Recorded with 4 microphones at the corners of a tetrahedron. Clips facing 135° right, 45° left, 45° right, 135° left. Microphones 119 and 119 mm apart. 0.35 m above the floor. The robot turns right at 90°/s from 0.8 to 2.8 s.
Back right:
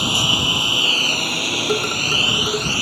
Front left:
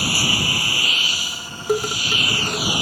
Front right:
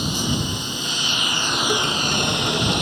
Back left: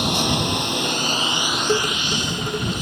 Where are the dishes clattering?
120° left; by 2.7 s 150° right.